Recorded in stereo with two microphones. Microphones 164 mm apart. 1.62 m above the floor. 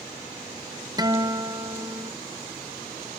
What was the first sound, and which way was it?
A guitar, 25° right (ahead or behind).